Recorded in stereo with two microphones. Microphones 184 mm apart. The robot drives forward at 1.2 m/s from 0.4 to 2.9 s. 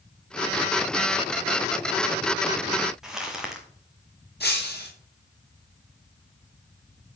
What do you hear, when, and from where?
3.0 s crumpling: 5° right (ahead or behind), 2.5 m
4.4 s breaking glass: 60° left (ahead or behind), 4.5 m